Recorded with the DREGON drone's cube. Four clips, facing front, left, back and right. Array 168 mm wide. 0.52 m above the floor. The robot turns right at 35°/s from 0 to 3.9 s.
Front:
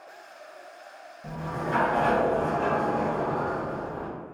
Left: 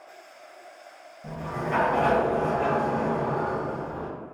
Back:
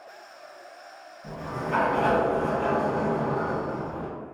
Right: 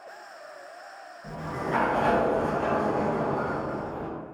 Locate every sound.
1.2 s a sliding door: 50° left, 1.8 m; by 4.1 s 140° left, 1.8 m